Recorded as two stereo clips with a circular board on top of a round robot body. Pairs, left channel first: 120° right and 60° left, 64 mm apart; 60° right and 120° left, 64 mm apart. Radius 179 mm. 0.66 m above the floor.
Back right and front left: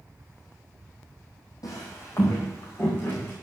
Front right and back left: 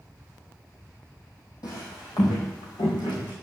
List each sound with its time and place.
1.6 s footsteps: 85° right, 2 m; by 3.3 s 60° right, 4 m